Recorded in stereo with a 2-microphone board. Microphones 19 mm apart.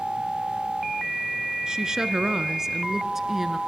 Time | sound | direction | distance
1.7 | a woman speaking | 40° right (ahead or behind) | 1.4 m